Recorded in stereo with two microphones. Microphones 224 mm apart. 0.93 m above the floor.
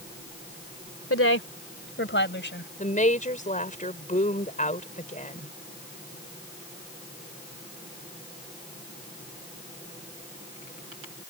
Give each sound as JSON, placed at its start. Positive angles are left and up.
{"t": 1.1, "sound": "a woman speaking", "side_deg": 75}
{"t": 2.8, "sound": "a woman speaking", "side_deg": 35}